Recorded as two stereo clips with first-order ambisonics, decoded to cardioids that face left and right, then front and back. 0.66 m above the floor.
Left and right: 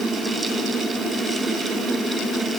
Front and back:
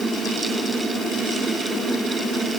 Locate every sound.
Only background noise.